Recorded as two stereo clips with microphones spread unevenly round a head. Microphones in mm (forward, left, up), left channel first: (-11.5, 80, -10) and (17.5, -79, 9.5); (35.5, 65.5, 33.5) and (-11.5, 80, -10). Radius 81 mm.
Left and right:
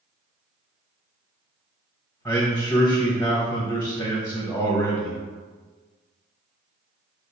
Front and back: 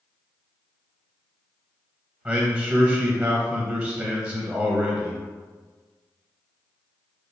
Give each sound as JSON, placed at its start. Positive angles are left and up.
{"t": 2.2, "sound": "a man speaking", "azimuth_deg": 170, "distance_m": 0.7}